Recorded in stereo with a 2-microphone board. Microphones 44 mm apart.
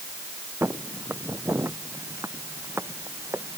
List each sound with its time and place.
0.6 s footsteps: 65° right (ahead or behind); by 3.6 s 85° right